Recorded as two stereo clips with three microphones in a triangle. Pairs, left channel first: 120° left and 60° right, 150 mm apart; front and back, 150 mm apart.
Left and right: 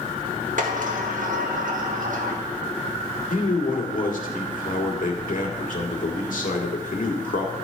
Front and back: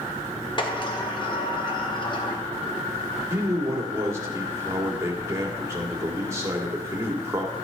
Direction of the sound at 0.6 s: 55° right.